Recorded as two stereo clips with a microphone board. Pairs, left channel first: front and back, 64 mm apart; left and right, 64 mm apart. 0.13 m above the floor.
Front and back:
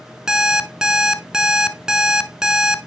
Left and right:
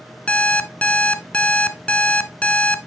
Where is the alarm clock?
120° left, 0.6 m.